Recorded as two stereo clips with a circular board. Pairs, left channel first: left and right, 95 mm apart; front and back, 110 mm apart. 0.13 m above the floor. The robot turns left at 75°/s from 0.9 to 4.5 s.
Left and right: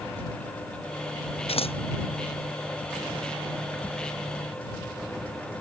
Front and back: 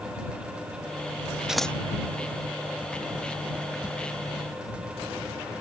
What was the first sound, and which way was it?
Scissors, 95° left.